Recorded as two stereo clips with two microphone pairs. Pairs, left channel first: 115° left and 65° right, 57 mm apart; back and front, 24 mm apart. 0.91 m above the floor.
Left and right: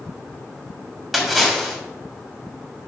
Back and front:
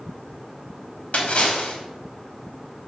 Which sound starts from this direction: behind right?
A splash, at 1.1 s.